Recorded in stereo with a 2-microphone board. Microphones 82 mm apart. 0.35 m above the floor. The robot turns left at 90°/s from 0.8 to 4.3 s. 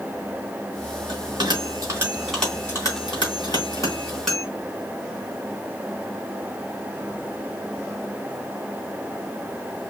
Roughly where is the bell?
Right.